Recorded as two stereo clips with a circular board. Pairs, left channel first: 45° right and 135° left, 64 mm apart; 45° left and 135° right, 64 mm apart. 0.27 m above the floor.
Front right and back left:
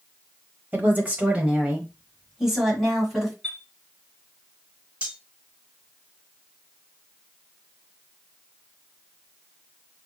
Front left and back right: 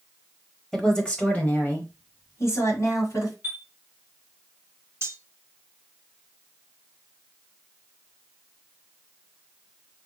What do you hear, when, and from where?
0.7 s a woman speaking: 120° left, 1.0 m; by 3.3 s 45° left, 1.7 m
3.4 s a chime: 100° right, 1.2 m
5.0 s cutlery clinking: 160° right, 0.6 m